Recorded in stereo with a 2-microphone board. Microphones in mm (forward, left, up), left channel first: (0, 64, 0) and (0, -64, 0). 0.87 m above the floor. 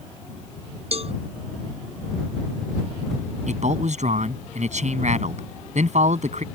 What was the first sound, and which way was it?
A cowbell, 55° right (ahead or behind).